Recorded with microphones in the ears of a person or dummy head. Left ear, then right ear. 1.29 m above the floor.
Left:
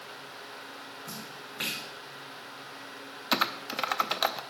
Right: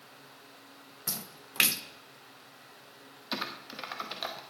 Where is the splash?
75° right (ahead or behind), 0.8 m.